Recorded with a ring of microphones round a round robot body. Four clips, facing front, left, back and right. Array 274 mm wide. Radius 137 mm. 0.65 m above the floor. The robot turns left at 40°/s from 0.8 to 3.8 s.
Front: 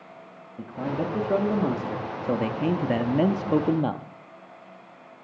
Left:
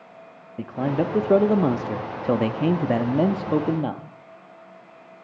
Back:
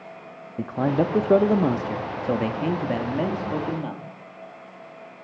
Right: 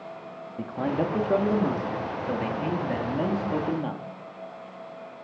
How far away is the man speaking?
About 0.7 m.